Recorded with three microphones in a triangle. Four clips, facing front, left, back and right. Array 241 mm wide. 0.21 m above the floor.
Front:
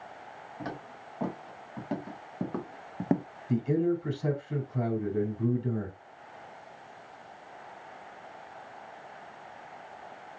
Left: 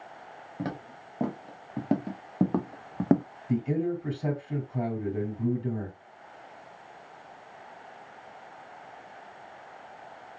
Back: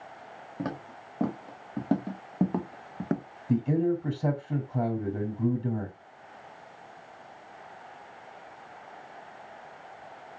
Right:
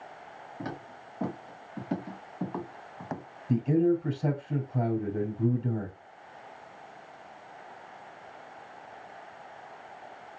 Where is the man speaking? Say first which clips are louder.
Right 4 dB, back 1 dB; 175° right, 1.9 m.